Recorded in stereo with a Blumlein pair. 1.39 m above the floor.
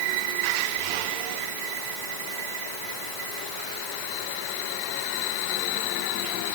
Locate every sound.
Only background noise.